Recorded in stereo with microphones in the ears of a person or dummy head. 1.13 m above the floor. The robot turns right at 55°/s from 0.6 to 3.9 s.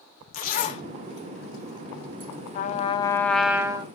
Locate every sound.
0.3 s a zipper: 50° left (ahead or behind), 0.8 m; by 2.3 s 45° right (ahead or behind), 0.8 m
2.5 s a trumpet: 130° left, 0.5 m; by 3.9 s 155° right, 0.5 m